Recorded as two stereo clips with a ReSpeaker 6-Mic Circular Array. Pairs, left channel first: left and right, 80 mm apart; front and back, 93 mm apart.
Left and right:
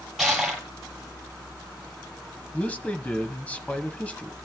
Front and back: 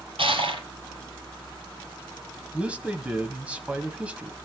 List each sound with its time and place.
0.2 s crushing: straight behind, 6 m
2.5 s a man speaking: 130° left, 1.0 m